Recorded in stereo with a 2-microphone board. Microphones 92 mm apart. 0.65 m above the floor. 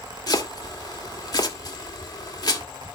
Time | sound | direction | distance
0.3 | chopping | 45° left (ahead or behind) | 1.9 m